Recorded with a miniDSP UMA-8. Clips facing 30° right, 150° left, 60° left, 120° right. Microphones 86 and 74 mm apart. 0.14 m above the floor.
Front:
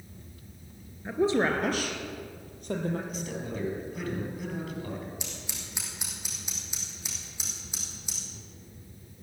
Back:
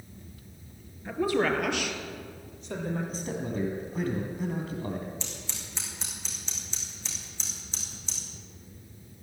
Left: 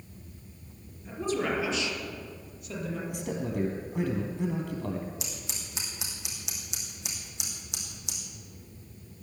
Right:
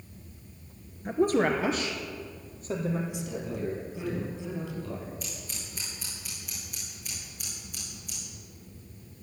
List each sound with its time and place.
1.1 s a woman speaking: 100° right, 2 m; by 3.0 s 65° right, 4 m
3.1 s a man speaking: 90° left, 4 m
5.2 s scissors: 45° left, 4 m